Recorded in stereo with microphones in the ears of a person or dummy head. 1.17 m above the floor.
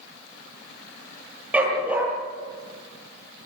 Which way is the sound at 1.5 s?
10° right (ahead or behind).